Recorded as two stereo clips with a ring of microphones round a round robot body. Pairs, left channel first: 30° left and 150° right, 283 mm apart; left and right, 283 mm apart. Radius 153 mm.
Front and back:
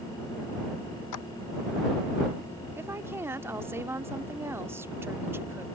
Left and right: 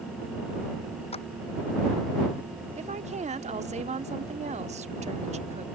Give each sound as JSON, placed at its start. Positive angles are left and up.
{"t": 1.1, "sound": "a clap", "azimuth_deg": 20}
{"t": 2.8, "sound": "a woman speaking", "azimuth_deg": -80}